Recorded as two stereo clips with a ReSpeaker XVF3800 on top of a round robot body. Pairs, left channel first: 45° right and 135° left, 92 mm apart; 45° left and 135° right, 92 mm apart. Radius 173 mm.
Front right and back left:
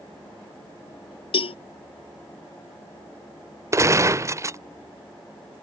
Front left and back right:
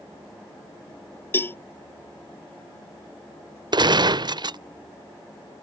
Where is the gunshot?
170° right.